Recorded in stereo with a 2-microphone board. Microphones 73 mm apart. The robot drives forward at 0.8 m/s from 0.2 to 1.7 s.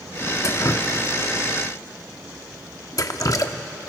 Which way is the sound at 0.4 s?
45° left (ahead or behind).